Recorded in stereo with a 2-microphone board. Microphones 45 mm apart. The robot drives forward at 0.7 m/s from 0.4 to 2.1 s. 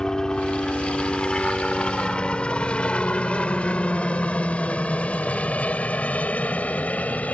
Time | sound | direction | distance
0.0 | a helicopter | 20° left (ahead or behind) | ?